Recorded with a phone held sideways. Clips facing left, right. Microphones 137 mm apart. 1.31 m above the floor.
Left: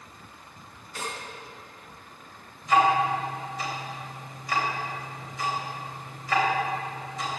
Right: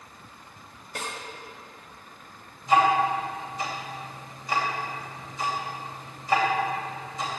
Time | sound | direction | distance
0.9 | a snare drum | 65° right (ahead or behind) | 2.5 m
2.6 | ticking | 25° right (ahead or behind) | 3 m